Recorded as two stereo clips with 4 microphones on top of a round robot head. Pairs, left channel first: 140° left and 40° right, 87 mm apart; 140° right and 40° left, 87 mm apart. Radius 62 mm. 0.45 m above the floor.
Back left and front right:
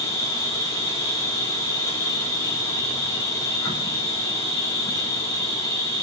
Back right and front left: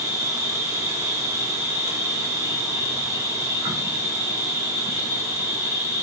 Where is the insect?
90° left, 6 m.